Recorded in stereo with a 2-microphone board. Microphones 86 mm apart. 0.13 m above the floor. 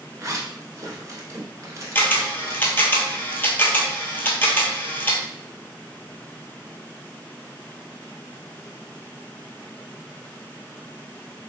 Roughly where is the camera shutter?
Left.